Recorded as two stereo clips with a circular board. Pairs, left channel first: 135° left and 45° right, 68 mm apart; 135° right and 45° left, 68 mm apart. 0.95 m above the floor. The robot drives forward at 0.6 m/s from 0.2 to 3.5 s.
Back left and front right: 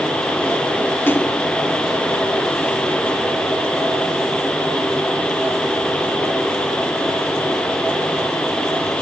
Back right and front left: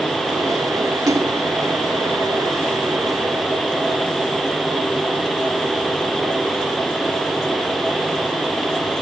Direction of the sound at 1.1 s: 75° left.